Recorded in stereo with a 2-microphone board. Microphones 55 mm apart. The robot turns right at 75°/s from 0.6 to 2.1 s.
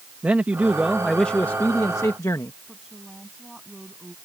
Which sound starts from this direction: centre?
A woman speaking, at 2.7 s.